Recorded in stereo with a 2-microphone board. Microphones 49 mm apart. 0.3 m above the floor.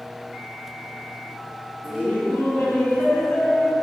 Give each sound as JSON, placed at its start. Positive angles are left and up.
{"t": 1.8, "sound": "laughter", "side_deg": 35, "distance_m": 5.0}